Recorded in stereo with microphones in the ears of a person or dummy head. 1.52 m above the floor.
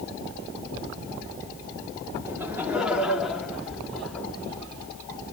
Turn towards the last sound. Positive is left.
turn(degrees=5)  # may be behind; listen again after turning